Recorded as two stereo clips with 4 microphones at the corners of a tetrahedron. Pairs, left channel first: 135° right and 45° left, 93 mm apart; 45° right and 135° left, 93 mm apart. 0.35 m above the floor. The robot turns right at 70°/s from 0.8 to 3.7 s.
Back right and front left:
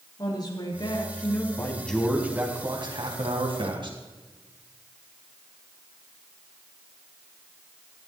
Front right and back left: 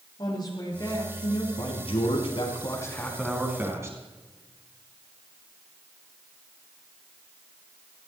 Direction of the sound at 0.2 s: 90° right.